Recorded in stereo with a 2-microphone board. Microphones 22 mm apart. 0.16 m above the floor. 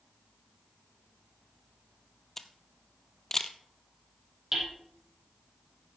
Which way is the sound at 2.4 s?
15° left (ahead or behind).